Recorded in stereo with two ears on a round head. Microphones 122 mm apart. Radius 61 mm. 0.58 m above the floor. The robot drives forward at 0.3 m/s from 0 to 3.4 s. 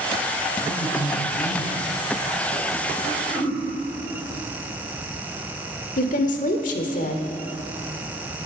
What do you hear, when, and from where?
0.6 s a man speaking: 25° left (ahead or behind), 5 m
3.0 s throat clearing: centre (ahead or behind), 3.5 m
6.0 s a woman speaking: 60° left (ahead or behind), 1.6 m